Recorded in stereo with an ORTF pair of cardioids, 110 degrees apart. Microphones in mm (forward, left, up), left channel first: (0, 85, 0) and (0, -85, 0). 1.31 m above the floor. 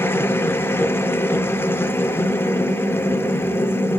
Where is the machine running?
15° left, 0.8 m.